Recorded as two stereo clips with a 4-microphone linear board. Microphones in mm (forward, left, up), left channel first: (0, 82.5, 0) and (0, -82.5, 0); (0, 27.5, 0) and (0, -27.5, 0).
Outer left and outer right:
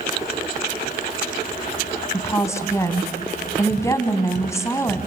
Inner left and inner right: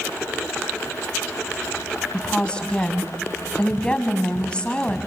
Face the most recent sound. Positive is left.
turn(degrees=20)  # may be behind; listen again after turning